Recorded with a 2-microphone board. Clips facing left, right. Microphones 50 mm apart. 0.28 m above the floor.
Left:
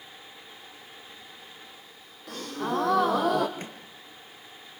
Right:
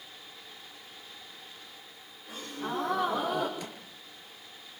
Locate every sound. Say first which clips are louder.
2.3 s a gasp: left 5 dB; 75° left (ahead or behind), 3.5 m
3.6 s a microwave: left 1 dB; 40° left (ahead or behind), 3.5 m